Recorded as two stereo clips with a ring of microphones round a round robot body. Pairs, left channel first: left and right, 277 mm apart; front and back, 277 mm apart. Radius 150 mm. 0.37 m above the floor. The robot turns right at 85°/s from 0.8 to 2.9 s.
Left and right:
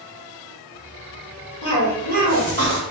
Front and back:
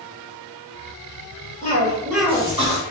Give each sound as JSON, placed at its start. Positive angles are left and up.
{"t": 1.6, "sound": "a cough", "azimuth_deg": 40, "distance_m": 1.3}